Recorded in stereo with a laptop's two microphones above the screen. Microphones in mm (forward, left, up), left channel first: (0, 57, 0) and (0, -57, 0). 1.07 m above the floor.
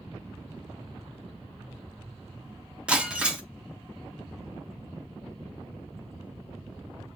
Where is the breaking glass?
10° right (ahead or behind), 0.7 m.